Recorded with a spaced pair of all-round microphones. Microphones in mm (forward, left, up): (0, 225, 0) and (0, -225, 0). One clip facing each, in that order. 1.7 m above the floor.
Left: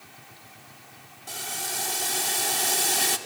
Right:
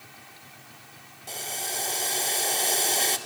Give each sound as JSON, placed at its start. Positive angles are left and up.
{"t": 1.3, "sound": "boiling", "side_deg": 25, "distance_m": 0.9}